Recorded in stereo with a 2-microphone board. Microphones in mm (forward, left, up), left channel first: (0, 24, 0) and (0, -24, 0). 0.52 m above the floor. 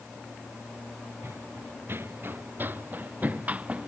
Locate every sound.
1.2 s running footsteps: 55° right (ahead or behind); by 3.9 s 25° right (ahead or behind)